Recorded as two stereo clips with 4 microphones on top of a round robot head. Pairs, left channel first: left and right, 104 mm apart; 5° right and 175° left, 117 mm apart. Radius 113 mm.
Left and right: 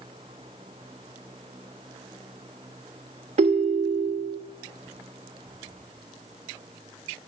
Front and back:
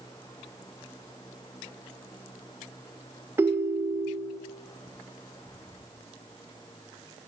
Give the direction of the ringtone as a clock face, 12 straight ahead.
4 o'clock.